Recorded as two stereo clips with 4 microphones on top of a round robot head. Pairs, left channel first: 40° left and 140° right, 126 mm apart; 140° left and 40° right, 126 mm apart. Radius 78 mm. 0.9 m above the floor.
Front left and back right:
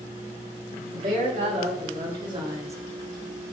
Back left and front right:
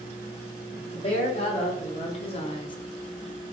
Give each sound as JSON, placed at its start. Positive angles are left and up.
{"t": 0.8, "sound": "a woman speaking", "azimuth_deg": 180, "distance_m": 2.0}